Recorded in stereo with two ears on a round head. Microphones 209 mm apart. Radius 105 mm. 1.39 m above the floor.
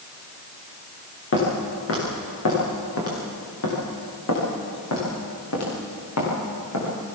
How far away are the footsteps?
About 8 m.